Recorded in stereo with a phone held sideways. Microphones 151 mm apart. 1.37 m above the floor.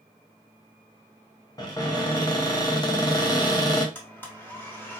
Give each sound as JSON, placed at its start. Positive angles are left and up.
{"t": 1.6, "sound": "a cupboard door", "side_deg": 25, "distance_m": 1.2}
{"t": 4.0, "sound": "a blender", "side_deg": 15, "distance_m": 1.5}